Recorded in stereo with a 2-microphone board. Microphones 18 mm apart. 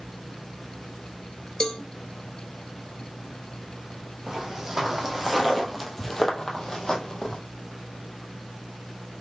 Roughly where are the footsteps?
Right.